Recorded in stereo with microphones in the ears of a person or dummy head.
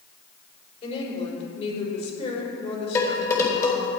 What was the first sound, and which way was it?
A woman speaking, 30° left (ahead or behind).